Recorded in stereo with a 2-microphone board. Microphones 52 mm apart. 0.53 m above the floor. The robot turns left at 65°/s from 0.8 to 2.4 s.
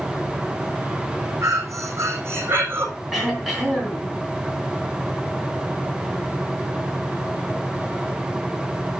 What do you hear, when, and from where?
1.4 s breathing: 65° right, 5.5 m; by 2.9 s 130° right, 5.5 m
3.1 s throat clearing: centre (ahead or behind), 4.5 m